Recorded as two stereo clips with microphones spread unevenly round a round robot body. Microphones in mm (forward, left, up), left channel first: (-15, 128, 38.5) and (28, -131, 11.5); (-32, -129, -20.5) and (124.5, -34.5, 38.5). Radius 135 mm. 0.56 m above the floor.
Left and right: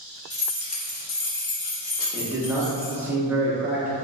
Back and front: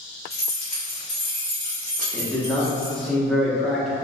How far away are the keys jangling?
About 0.8 m.